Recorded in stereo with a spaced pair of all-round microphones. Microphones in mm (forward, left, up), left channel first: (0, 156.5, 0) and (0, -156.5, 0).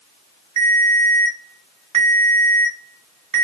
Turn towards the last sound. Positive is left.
turn(degrees=-75)  # may be behind; listen again after turning